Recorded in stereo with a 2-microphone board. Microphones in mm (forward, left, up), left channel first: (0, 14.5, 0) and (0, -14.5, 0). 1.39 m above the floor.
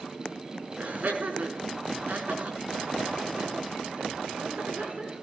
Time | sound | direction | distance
0.8 | laughter | 70° right (ahead or behind) | 4.5 m